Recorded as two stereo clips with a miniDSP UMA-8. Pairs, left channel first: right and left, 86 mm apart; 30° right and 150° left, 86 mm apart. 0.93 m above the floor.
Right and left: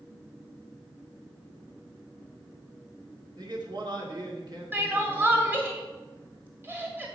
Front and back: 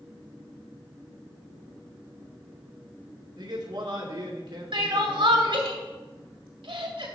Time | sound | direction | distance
3.4 | a man speaking | 120° left | 2 m
4.7 | crying | 155° left | 1.6 m